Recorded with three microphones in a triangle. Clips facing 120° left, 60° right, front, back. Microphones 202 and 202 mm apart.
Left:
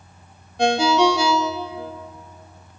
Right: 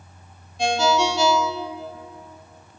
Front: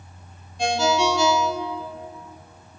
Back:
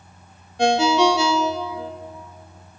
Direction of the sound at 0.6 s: 150° left.